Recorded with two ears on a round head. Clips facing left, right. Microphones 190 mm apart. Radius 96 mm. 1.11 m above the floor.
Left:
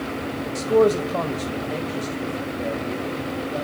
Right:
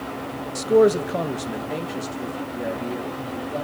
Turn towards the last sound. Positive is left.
turn(degrees=-10)  # may be behind; listen again after turning